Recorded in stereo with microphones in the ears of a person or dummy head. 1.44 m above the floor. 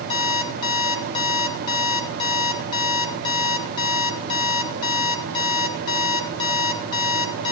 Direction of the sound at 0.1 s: 30° left (ahead or behind).